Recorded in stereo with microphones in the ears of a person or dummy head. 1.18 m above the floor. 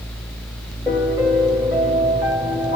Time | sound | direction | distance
0.9 | a piano | 10° right (ahead or behind) | 2.5 m